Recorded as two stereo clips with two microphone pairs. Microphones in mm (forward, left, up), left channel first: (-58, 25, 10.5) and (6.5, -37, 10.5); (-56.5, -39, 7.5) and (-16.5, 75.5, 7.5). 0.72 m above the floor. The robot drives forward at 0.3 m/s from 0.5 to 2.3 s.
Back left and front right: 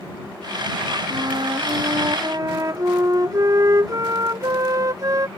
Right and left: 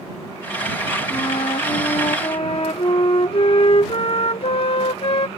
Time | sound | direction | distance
1.1 | a flute | 70° right | ?